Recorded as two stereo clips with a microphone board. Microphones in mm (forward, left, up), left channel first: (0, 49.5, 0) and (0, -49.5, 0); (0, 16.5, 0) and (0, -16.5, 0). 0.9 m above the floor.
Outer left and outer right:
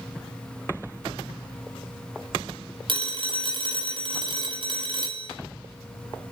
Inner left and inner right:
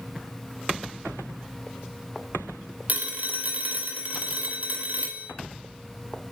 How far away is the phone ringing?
About 2.5 m.